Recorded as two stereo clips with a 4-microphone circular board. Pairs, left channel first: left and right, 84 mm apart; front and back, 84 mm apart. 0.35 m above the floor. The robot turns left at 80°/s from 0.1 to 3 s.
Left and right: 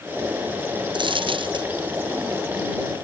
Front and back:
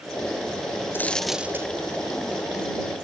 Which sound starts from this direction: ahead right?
A dropped coin, at 0.9 s.